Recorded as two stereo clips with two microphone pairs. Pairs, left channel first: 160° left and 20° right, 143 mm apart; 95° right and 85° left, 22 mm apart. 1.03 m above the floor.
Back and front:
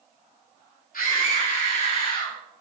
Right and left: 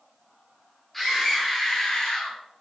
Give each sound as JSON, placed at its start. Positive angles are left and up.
{"t": 0.9, "sound": "a scream", "azimuth_deg": 175, "distance_m": 2.5}